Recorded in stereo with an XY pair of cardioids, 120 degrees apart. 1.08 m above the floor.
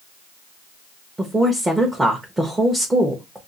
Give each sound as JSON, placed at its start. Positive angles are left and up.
{"t": 1.2, "sound": "a woman speaking", "azimuth_deg": -15, "distance_m": 0.9}